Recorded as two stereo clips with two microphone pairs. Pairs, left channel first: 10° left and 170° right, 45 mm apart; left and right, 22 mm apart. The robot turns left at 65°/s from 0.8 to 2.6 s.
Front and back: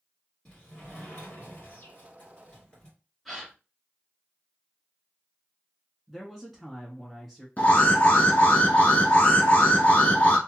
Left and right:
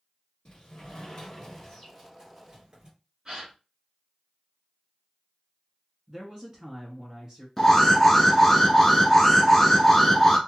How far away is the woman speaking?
About 1.6 m.